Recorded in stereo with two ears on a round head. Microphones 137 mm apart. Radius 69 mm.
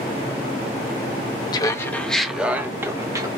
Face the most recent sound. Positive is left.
turn(degrees=-25)  # may be behind; listen again after turning